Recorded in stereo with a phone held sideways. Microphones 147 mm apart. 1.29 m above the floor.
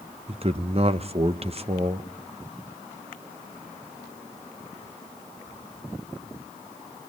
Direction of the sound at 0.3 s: 45° right (ahead or behind).